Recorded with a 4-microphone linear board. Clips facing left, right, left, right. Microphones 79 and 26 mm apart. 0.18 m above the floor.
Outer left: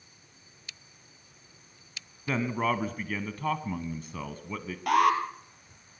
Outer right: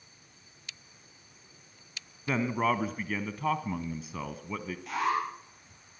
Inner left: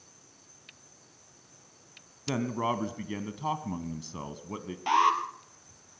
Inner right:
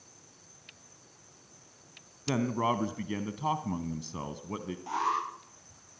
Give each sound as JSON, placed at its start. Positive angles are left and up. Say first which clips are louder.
{"t": 2.3, "sound": "a man speaking", "louder": "even, inner right 1 dB", "side_deg": -5, "distance_m": 1.1}
{"t": 4.9, "sound": "an alarm", "louder": "outer left 7 dB, inner left 7 dB", "side_deg": 70, "distance_m": 4.0}